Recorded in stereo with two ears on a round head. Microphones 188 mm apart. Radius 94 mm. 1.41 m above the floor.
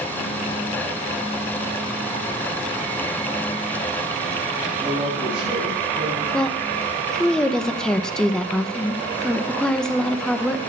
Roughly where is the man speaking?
Centre.